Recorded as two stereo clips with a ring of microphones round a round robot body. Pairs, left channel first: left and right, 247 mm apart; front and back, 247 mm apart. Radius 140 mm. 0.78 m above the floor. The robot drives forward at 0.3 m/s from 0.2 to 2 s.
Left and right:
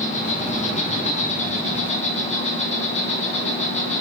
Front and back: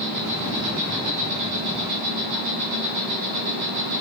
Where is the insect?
150° left, 8.5 m; by 4.0 s 155° left, 9 m.